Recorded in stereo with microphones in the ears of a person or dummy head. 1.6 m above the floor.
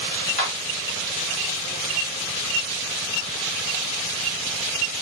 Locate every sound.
0.4 s a clap: 40° left (ahead or behind), 4 m